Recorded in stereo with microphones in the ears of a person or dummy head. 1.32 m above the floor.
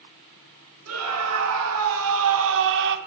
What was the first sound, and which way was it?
A scream, 85° right.